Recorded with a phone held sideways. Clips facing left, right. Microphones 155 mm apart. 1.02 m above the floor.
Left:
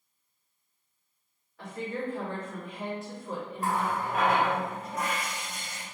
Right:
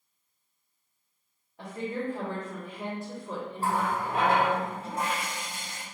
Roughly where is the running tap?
Right.